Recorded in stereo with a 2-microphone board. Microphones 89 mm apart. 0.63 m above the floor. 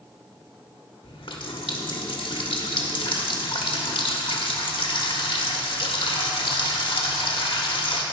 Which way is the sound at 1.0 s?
70° left (ahead or behind).